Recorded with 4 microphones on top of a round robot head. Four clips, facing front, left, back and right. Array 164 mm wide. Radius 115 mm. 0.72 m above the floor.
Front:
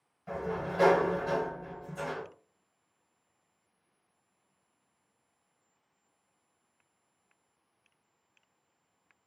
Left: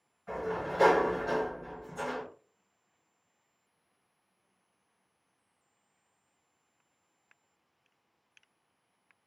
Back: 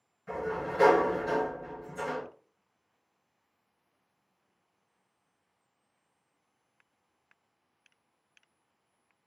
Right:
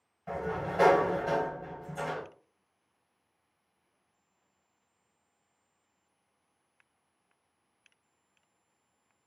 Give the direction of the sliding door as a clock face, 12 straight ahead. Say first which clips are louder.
Even, back 1 dB; 2 o'clock.